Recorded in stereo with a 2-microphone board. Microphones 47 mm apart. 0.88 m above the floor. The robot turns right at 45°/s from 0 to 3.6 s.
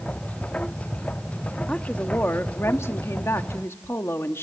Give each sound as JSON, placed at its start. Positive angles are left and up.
{"t": 1.7, "sound": "a woman speaking", "azimuth_deg": 25, "distance_m": 1.2}